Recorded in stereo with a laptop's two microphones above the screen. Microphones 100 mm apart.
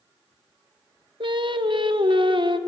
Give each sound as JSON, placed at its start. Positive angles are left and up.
{"t": 1.2, "sound": "singing", "side_deg": -55, "distance_m": 0.5}